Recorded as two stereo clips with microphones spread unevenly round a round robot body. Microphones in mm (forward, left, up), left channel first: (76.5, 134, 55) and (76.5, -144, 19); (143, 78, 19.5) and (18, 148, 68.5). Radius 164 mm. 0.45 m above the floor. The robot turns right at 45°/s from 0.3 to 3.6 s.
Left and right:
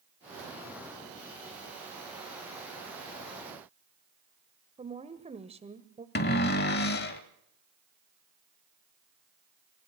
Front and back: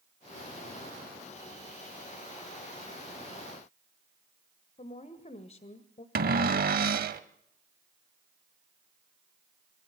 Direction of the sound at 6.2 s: 150° left.